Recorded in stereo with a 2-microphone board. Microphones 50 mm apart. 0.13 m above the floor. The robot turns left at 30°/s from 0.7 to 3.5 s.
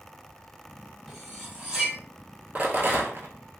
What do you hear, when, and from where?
1.1 s cutlery clinking: centre (ahead or behind), 1.6 m; by 2.0 s 25° right (ahead or behind), 1.6 m
2.5 s a rattle: 35° right (ahead or behind), 0.7 m; by 3.3 s 55° right (ahead or behind), 0.7 m